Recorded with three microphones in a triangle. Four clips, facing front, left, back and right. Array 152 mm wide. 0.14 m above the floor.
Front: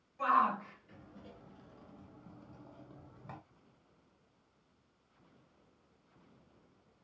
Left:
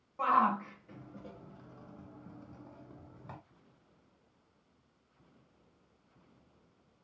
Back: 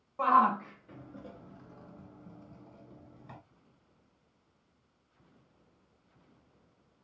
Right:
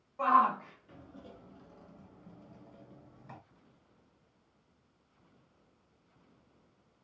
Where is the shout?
175° left, 2.5 m; by 3.4 s 55° left, 1.8 m.